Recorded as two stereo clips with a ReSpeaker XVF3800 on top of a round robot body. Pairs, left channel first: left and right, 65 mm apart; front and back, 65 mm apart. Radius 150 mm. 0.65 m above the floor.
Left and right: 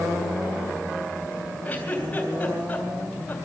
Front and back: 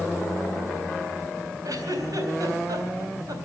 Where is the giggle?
155° left, 3.5 m.